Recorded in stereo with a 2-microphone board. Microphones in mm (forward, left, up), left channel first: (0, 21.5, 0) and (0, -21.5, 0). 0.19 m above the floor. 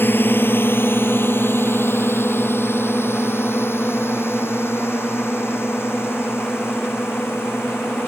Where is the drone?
55° left (ahead or behind); by 8.1 s 70° left (ahead or behind).